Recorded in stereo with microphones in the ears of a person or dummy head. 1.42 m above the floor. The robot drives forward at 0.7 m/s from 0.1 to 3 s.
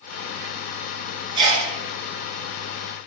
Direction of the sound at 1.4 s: 30° right (ahead or behind).